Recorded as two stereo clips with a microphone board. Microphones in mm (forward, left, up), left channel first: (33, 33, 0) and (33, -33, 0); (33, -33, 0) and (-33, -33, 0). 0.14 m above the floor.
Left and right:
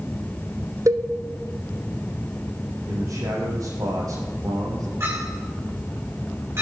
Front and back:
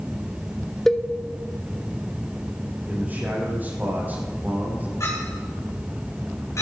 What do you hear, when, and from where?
0.9 s a cowbell: 85° right, 0.9 m
2.9 s a man speaking: 120° right, 6 m
5.0 s a clink: 40° right, 6.5 m